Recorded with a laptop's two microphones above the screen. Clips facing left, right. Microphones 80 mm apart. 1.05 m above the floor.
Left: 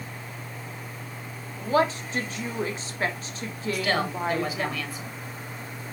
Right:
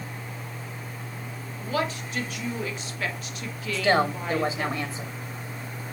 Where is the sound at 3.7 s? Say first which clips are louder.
Right 5 dB; 25° right (ahead or behind), 1.7 m.